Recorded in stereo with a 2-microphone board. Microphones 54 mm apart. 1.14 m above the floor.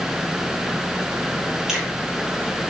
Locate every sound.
1.7 s a finger snap: 10° right (ahead or behind), 4.5 m